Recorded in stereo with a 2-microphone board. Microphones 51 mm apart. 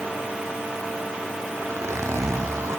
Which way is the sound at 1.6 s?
75° right (ahead or behind).